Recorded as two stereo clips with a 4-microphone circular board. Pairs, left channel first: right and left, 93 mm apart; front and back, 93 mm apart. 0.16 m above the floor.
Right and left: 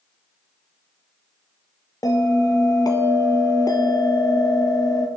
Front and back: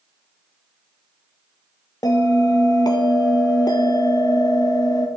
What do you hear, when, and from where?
2.0 s a bell: 45° right, 0.9 m